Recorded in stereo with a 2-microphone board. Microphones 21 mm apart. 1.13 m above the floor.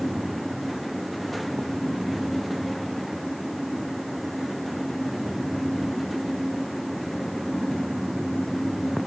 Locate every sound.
Only background noise.